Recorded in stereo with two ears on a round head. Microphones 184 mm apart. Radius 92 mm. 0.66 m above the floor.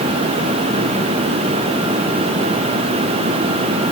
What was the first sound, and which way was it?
Only background noise.